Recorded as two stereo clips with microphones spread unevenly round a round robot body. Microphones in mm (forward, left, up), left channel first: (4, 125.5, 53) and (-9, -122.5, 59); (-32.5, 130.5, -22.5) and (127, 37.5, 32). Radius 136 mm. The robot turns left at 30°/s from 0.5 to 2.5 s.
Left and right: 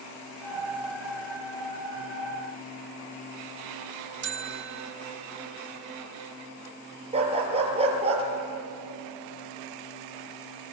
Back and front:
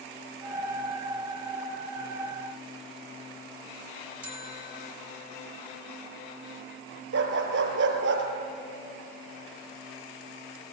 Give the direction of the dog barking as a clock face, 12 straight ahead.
1 o'clock.